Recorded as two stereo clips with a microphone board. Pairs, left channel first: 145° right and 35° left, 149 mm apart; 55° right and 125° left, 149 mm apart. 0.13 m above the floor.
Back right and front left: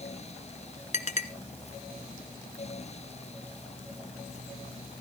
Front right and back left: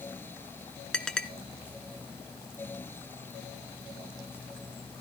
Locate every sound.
0.9 s a clink: 140° right, 1.2 m